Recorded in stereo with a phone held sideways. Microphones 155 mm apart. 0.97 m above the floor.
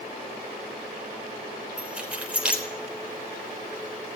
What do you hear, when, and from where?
1.8 s keys jangling: 10° right (ahead or behind), 3 m